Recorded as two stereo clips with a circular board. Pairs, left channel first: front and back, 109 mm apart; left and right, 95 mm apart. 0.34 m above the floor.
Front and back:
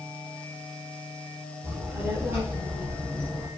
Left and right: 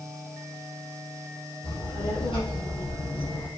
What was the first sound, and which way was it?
A child speaking, 115° left.